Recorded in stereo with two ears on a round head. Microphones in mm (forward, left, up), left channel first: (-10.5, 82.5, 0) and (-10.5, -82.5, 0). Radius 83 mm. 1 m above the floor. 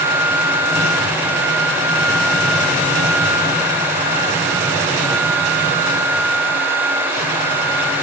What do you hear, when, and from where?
Only background noise.